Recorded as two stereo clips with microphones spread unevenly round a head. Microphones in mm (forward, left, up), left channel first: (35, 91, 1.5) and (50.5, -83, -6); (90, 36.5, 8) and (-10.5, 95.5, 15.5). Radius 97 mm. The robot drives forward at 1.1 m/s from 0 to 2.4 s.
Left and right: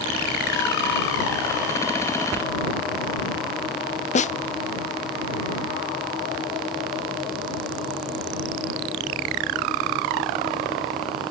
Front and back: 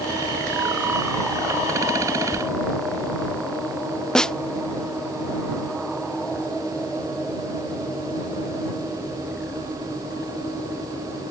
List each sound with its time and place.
4.2 s a snare drum: 55° left